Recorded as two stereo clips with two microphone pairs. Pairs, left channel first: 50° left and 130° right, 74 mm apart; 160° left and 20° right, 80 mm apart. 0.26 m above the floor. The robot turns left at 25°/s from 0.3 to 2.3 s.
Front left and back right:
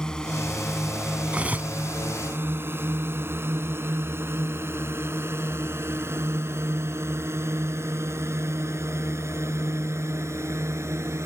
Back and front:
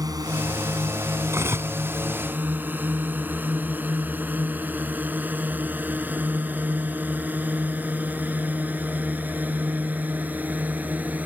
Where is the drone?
30° right; by 11.3 s 90° right.